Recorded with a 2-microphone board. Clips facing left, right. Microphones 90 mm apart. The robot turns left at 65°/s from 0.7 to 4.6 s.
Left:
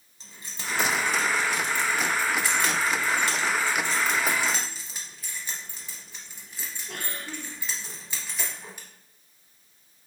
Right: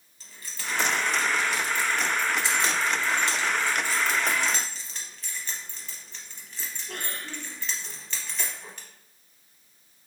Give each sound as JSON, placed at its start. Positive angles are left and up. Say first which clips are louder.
{"t": 0.2, "sound": "keys jangling", "louder": "even", "side_deg": 20, "distance_m": 0.7}